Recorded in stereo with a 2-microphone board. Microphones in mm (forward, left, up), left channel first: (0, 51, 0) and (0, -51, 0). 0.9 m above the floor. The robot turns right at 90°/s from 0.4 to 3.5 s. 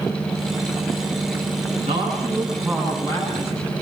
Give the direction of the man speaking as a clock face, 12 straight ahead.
3 o'clock.